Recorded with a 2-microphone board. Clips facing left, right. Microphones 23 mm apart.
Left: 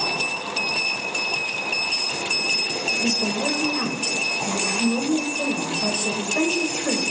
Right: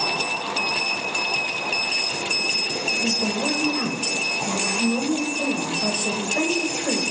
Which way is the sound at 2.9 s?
35° left (ahead or behind).